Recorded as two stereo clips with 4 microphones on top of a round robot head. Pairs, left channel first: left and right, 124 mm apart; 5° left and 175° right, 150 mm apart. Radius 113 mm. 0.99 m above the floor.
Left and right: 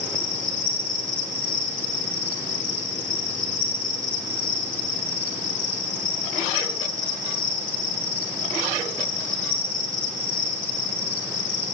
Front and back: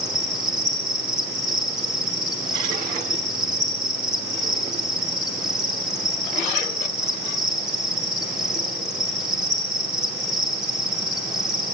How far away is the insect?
About 3 m.